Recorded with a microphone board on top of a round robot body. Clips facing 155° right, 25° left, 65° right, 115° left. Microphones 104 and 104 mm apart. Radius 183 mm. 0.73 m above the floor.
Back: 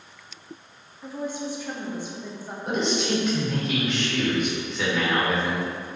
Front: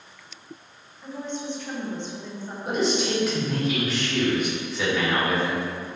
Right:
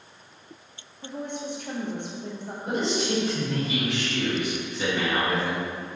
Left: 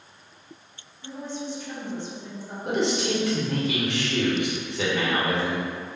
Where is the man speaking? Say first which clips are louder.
Front 1 dB, left 2 dB; 110° left, 1.7 m.